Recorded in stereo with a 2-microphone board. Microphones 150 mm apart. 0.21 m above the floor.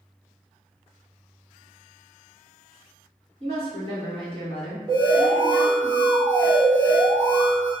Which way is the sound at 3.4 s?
45° right (ahead or behind).